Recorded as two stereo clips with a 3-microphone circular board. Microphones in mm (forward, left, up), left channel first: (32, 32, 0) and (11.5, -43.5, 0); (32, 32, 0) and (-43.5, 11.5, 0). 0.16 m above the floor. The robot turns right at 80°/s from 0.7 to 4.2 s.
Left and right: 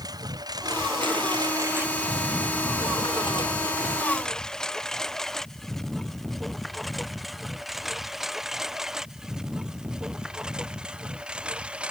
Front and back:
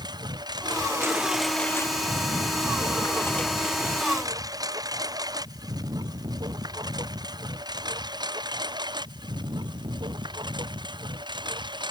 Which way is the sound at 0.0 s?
140° right.